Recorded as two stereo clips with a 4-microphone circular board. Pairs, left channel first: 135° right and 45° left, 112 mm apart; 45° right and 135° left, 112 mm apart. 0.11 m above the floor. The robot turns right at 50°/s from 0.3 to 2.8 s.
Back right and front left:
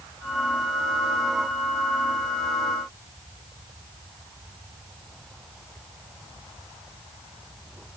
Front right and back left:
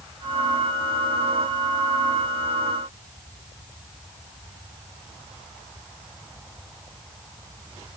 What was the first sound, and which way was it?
Only background noise.